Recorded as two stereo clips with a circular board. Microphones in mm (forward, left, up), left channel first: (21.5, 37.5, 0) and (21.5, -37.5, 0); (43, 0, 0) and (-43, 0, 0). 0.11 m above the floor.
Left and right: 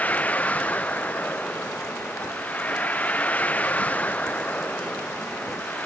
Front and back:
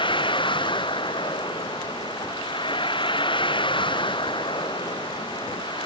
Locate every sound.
0.0 s a vehicle: 20° left